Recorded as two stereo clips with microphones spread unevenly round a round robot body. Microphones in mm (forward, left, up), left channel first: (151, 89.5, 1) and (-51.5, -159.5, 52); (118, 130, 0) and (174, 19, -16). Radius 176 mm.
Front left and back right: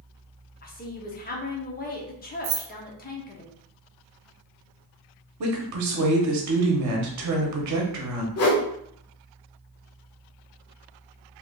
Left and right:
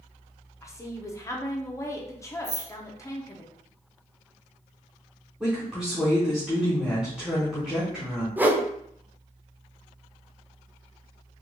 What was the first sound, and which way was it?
A woman speaking, 55° left.